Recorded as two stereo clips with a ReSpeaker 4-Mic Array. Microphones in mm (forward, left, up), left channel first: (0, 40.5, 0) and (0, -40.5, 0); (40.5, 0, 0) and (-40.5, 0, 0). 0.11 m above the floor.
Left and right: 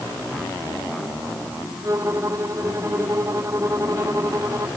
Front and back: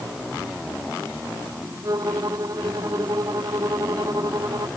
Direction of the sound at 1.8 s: 140° right.